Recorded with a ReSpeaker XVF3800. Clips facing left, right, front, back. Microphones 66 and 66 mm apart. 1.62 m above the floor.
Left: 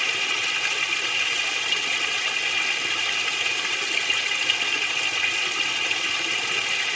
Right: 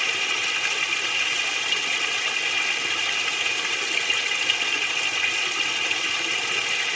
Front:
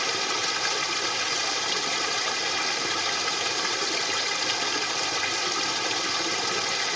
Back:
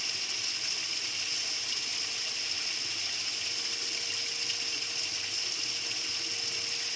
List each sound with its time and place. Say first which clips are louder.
0.0 s running water: even, front 14 dB; straight ahead